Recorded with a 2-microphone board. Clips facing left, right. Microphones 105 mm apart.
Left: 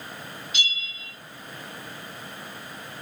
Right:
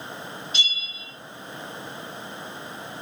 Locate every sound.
0.5 s a bell: 35° right (ahead or behind), 2 m